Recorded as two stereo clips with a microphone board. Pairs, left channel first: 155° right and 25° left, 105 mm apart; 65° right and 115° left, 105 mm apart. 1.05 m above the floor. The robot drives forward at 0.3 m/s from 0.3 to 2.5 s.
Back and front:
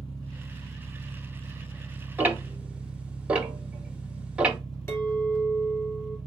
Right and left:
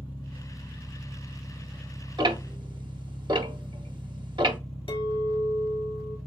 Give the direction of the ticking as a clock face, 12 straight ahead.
9 o'clock.